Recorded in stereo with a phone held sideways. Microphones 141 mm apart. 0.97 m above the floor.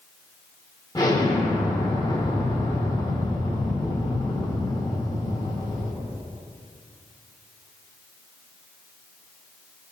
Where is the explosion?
30° left (ahead or behind), 2 m.